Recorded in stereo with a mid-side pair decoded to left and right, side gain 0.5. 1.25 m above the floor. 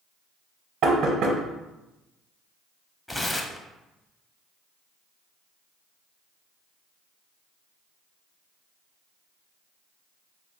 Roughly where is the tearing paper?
Ahead.